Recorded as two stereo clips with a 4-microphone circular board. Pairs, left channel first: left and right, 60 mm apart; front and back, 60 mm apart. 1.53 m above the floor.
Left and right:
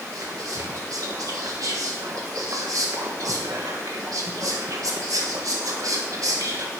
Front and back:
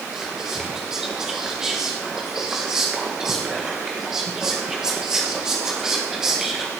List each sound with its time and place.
0.1 s whispering: 100° right, 1.1 m